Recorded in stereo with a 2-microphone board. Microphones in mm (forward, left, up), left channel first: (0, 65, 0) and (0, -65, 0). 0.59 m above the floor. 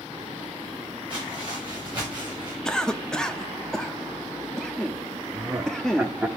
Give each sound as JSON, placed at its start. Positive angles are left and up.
{"t": 1.1, "sound": "footsteps", "side_deg": -40, "distance_m": 6.5}
{"t": 2.6, "sound": "a cough", "side_deg": 5, "distance_m": 0.6}
{"t": 5.3, "sound": "laughter", "side_deg": -10, "distance_m": 0.9}